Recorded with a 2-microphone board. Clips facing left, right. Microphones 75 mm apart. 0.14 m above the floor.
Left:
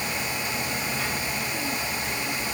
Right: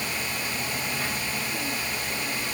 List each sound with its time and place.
Only background noise.